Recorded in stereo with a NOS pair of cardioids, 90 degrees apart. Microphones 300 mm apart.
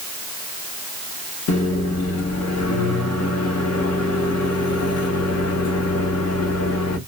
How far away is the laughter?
No laughter in this recording.